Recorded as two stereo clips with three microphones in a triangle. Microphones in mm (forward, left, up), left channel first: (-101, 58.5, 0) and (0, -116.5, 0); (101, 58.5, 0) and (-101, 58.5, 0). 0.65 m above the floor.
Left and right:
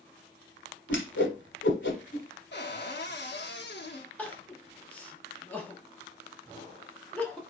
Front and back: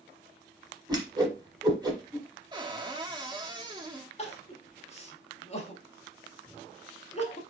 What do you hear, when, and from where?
0.9 s a whoosh: 110° left, 1.1 m
2.5 s a cupboard door: 110° left, 0.9 m
4.2 s crying: 40° left, 0.8 m